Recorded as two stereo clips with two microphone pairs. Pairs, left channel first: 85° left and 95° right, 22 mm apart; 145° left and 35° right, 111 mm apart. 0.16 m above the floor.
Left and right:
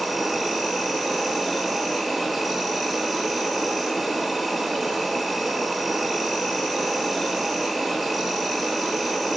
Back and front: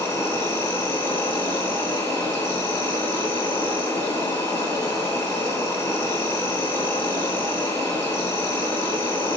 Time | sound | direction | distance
0.0 | an insect | 170° right | 2.5 m